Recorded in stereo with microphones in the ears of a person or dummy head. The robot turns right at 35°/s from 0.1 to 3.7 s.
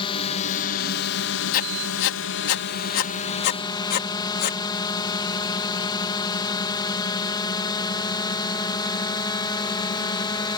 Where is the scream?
No scream in this recording.